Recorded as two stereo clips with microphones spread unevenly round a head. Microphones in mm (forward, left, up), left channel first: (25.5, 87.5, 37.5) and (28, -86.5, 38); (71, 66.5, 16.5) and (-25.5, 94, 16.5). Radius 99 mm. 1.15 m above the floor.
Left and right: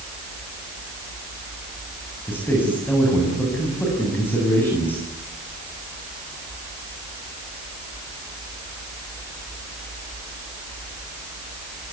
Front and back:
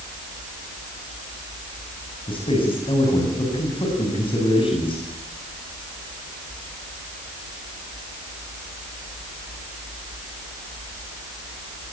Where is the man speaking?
10° left, 8 m.